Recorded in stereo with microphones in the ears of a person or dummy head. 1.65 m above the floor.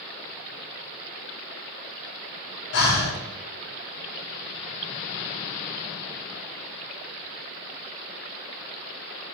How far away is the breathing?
About 1.4 m.